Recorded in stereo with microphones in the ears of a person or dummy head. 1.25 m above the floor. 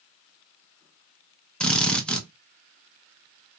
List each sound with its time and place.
1.6 s a drill: 5° left (ahead or behind), 0.5 m